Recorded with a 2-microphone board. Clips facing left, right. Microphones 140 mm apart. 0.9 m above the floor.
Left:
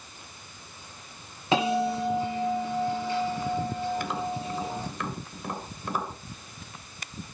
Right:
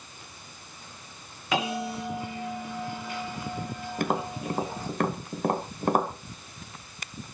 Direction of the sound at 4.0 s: 50° right (ahead or behind).